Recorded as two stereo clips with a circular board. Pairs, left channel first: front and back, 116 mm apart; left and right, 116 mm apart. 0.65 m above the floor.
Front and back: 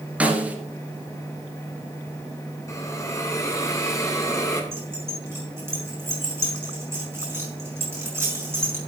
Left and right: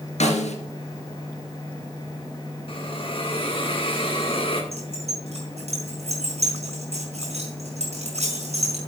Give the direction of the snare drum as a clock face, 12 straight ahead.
9 o'clock.